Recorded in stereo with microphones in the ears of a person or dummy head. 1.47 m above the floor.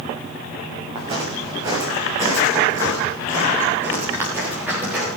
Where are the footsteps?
30° right (ahead or behind), 7 m; by 5.1 s 10° right (ahead or behind), 9.5 m.